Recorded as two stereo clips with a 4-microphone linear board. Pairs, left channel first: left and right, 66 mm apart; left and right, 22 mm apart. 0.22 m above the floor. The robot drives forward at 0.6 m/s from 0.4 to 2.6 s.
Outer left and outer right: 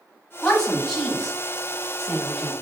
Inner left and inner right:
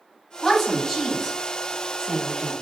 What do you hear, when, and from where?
0.4 s a woman speaking: 10° left (ahead or behind), 1.6 m; by 2.5 s 5° left (ahead or behind), 2.5 m